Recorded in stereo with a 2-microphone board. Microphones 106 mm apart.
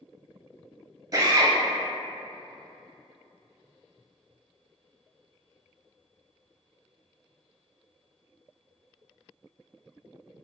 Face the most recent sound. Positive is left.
turn(degrees=-35)  # may be behind; listen again after turning